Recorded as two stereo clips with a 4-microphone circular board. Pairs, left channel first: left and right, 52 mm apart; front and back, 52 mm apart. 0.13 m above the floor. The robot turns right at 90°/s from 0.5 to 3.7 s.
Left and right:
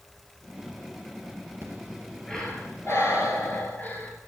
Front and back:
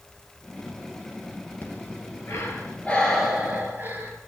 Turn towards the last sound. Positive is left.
turn(degrees=135)